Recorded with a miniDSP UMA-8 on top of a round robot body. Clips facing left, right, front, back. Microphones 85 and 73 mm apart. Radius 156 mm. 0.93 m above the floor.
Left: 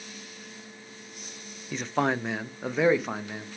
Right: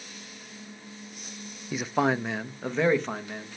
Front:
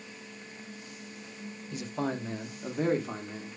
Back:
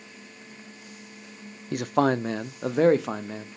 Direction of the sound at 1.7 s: 170° right.